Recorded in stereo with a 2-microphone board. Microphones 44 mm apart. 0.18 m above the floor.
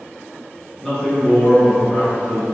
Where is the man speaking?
10° left (ahead or behind), 1.4 m; by 2.4 s 45° left (ahead or behind), 1.8 m.